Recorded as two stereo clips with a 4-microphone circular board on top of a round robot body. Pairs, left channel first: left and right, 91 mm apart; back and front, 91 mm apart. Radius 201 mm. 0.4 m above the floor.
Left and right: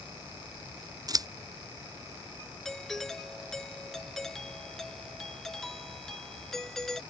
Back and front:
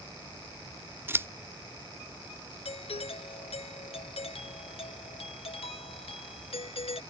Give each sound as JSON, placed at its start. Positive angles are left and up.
{"t": 1.1, "sound": "scissors", "azimuth_deg": -60}
{"t": 2.6, "sound": "a doorbell", "azimuth_deg": 175}